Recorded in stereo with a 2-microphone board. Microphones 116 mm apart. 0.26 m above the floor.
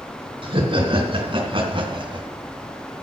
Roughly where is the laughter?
Right.